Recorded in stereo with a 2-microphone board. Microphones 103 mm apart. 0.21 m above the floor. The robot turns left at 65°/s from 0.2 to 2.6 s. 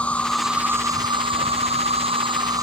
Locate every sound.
0.0 s an insect: 10° left; by 2.6 s 145° right